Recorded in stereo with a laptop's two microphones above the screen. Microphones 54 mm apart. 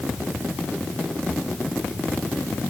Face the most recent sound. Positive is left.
No sound to turn to.